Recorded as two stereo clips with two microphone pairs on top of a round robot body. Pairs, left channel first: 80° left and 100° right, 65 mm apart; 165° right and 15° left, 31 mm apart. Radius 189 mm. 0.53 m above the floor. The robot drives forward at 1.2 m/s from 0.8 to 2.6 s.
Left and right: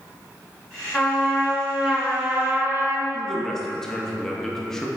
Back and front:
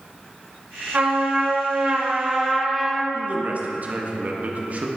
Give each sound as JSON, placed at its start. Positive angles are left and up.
{"t": 0.9, "sound": "a trumpet", "azimuth_deg": -20, "distance_m": 2.5}
{"t": 3.1, "sound": "a man speaking", "azimuth_deg": -5, "distance_m": 1.3}